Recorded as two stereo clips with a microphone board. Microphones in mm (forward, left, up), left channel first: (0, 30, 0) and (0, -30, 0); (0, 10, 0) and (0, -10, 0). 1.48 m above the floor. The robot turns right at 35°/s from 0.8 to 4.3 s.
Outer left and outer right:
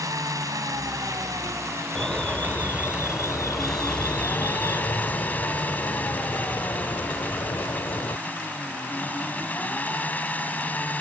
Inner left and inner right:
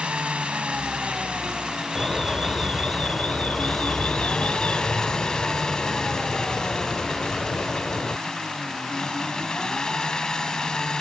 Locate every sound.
0.0 s an engine running: 95° right; by 11.0 s 30° left
1.9 s an alarm: 15° left; by 8.2 s 95° left